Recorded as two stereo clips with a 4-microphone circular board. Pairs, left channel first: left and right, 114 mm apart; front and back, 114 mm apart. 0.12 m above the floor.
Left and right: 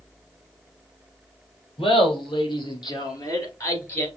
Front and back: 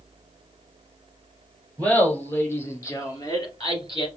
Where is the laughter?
75° left, 2 m; by 4.1 s 30° left, 1.9 m.